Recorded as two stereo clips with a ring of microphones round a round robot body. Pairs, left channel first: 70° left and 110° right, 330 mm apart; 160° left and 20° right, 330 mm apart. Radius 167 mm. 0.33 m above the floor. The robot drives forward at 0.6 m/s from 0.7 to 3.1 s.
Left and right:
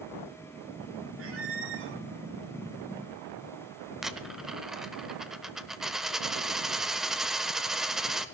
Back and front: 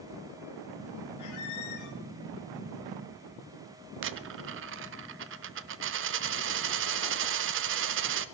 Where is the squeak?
165° right, 1.9 m; by 2.0 s 170° right, 2.5 m.